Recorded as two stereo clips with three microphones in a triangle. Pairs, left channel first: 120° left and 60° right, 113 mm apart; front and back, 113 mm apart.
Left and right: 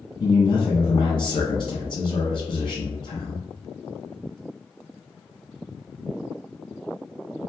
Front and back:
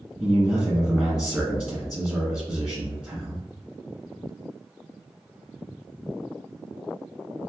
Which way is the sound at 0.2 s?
90° left.